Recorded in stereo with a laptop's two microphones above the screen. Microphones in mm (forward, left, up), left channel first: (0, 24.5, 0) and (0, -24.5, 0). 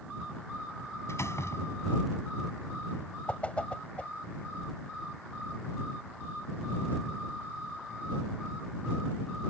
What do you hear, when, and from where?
1.1 s a door slam: 70° left (ahead or behind)
3.3 s a whoosh: 25° left (ahead or behind)